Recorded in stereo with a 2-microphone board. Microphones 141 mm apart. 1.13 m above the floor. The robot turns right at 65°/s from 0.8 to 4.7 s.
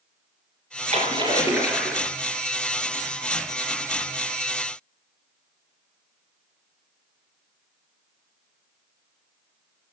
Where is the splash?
60° right, 3 m; by 2.1 s 15° left, 3 m.